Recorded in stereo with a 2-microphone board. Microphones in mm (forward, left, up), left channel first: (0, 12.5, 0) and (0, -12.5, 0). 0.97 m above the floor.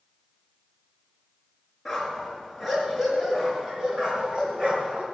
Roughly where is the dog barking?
Centre.